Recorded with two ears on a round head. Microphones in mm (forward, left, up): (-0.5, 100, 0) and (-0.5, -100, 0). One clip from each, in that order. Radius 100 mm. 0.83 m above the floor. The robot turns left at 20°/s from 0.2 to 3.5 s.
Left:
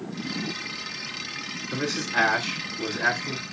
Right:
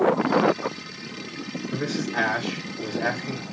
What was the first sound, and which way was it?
A man speaking, 65° left.